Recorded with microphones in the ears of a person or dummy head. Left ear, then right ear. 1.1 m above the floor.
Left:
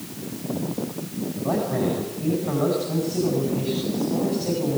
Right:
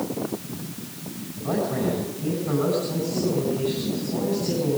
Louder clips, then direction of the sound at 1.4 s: Left 1 dB; 15° left (ahead or behind).